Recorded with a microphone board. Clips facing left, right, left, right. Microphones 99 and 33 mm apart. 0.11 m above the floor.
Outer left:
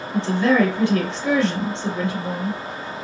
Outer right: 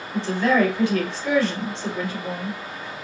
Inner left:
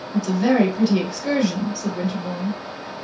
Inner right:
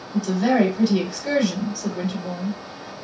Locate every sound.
0.1 s a woman speaking: 20° left (ahead or behind), 1.7 m